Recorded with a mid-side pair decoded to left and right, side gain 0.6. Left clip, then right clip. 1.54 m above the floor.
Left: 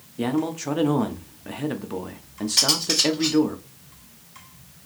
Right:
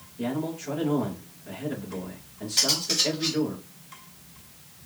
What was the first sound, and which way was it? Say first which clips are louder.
A man speaking: left 5 dB; 60° left.